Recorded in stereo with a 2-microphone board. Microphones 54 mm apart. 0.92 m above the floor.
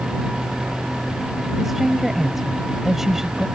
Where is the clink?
No clink in this recording.